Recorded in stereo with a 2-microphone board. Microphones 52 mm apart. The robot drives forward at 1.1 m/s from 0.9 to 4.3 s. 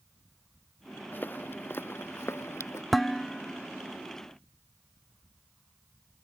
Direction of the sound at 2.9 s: Centre (ahead or behind).